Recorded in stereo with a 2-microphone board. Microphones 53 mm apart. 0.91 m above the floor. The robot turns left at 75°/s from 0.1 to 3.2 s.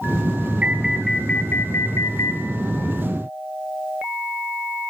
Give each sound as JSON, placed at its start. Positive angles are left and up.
{"t": 0.6, "sound": "an alarm", "azimuth_deg": -150, "distance_m": 4.0}